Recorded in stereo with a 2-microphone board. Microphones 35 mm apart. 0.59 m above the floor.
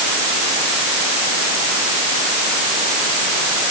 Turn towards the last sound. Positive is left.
No sound to turn to.